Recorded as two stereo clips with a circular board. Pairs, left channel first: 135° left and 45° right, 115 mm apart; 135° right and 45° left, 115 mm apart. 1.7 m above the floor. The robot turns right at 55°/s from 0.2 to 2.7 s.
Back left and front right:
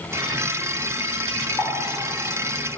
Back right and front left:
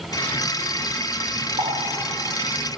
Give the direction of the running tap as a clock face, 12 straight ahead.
10 o'clock.